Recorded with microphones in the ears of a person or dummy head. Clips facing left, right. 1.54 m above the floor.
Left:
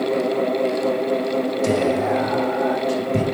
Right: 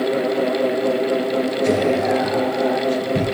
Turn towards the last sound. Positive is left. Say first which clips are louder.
# right 2 dB
turn(degrees=70)  # may be behind; listen again after turning